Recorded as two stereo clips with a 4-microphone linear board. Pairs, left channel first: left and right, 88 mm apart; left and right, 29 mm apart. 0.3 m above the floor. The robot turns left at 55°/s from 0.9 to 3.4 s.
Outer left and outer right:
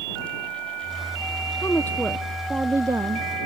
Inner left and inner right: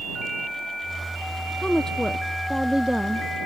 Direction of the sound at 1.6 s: 35° left.